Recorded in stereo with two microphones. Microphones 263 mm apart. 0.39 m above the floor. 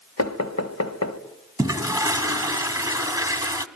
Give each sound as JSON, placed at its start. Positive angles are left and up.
{"t": 0.2, "sound": "knocking", "side_deg": 65, "distance_m": 1.3}
{"t": 1.6, "sound": "a toilet flushing", "side_deg": -15, "distance_m": 0.9}